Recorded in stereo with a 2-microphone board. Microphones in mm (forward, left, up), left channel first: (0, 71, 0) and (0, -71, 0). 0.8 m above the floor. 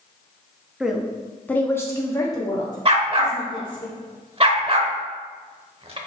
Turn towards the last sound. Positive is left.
turn(degrees=-45)  # may be behind; listen again after turning